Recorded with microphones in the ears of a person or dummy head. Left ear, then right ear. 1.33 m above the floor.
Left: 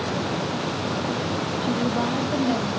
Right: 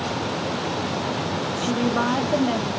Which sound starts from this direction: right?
A woman speaking, at 1.6 s.